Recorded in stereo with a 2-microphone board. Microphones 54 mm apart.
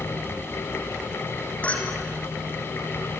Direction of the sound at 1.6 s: 25° left (ahead or behind).